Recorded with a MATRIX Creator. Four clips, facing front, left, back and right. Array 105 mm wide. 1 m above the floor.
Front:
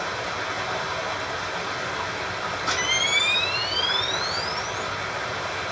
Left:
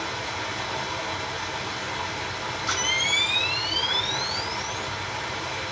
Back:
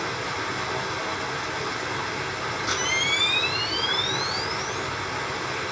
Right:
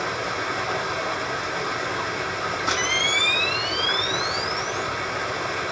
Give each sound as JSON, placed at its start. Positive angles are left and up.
{"t": 0.0, "sound": "running water", "azimuth_deg": -110, "distance_m": 1.7}
{"t": 2.7, "sound": "a camera shutter", "azimuth_deg": -70, "distance_m": 1.6}